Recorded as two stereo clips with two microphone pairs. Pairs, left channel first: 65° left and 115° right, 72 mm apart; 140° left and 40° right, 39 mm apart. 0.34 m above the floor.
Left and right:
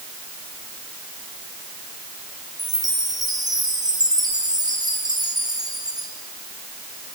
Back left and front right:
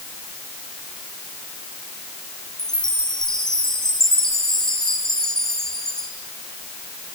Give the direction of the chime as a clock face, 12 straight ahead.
5 o'clock.